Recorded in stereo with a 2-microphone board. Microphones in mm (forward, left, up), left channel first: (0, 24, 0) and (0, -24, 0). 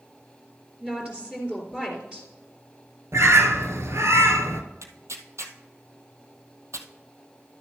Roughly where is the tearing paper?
Right.